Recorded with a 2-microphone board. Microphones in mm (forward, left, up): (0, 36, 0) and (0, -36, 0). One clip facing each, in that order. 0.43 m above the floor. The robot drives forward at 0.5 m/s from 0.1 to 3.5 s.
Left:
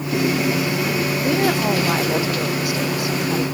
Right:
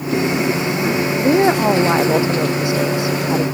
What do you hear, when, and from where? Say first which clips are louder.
1.2 s a woman speaking: right 7 dB; 25° right (ahead or behind)